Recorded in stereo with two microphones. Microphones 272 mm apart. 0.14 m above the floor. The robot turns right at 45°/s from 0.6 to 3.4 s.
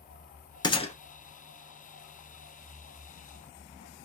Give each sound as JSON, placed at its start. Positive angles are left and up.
{"t": 0.6, "sound": "a gunshot", "side_deg": 15, "distance_m": 0.7}